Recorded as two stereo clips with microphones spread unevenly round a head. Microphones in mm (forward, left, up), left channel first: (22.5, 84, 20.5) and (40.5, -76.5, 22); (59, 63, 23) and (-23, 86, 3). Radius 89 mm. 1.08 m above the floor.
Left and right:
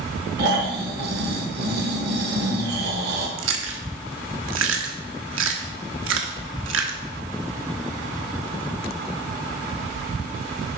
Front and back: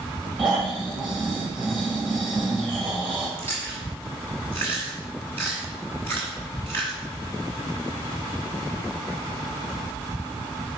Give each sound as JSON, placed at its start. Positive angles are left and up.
{"t": 0.4, "sound": "snoring", "azimuth_deg": -110, "distance_m": 1.4}
{"t": 3.4, "sound": "chewing", "azimuth_deg": -95, "distance_m": 1.1}